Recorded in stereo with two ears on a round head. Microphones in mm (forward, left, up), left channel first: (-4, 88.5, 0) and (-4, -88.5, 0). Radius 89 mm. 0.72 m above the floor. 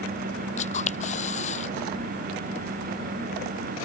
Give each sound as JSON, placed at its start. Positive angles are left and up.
{"t": 0.6, "sound": "a camera shutter", "side_deg": 35}